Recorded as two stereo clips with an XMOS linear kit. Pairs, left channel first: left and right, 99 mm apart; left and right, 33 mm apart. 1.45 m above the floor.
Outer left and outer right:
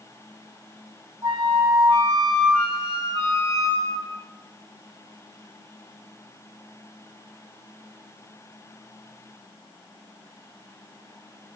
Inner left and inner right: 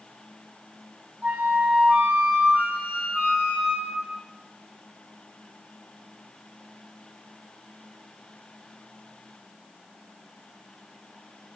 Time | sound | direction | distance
1.2 | a flute | 55° right (ahead or behind) | 4 m